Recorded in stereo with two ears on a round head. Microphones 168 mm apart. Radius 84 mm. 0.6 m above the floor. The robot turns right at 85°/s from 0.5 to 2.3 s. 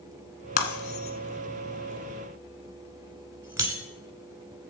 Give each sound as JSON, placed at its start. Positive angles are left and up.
{"t": 0.6, "sound": "breaking glass", "side_deg": 45, "distance_m": 1.7}